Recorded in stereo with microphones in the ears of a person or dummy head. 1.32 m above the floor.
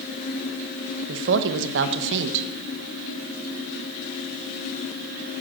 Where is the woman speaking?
70° right (ahead or behind), 1.1 m.